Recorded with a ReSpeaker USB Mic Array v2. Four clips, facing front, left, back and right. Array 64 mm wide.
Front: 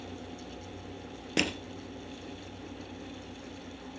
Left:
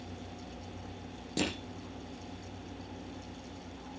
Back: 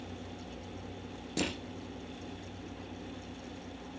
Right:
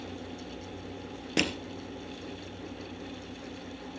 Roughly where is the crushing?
Ahead right.